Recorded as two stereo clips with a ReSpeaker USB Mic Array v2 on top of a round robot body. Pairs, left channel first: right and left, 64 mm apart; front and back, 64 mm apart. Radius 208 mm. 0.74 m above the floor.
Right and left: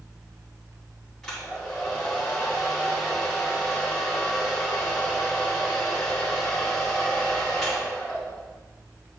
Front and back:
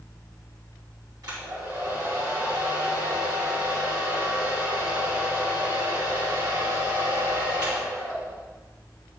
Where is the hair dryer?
175° right, 2.5 m.